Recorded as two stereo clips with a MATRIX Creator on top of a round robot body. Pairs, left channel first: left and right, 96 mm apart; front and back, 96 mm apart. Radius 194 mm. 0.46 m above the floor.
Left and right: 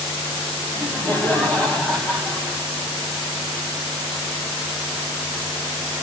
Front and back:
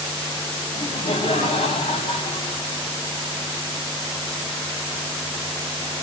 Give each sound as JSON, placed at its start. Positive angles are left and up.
{"t": 0.7, "sound": "laughter", "azimuth_deg": 20, "distance_m": 5.5}